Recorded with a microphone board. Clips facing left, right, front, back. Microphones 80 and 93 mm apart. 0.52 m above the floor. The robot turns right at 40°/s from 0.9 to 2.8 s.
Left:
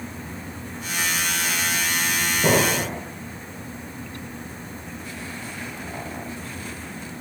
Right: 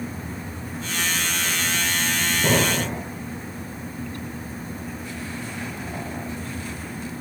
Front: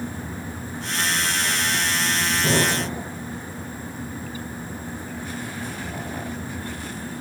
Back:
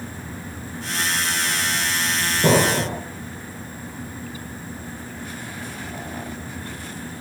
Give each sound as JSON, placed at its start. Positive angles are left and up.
{"t": 2.4, "sound": "an explosion", "azimuth_deg": 160, "distance_m": 1.0}